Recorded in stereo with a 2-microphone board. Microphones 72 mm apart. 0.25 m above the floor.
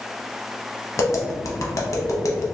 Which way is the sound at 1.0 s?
50° left (ahead or behind).